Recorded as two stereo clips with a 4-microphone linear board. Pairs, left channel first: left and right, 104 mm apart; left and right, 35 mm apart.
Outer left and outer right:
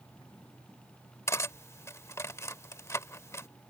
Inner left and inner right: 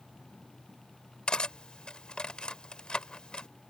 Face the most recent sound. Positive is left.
turn(degrees=30)  # may be behind; listen again after turning